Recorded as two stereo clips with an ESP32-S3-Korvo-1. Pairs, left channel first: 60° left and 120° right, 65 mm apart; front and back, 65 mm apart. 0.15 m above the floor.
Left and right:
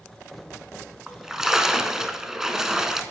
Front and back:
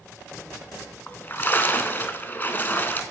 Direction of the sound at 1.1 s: 45° right.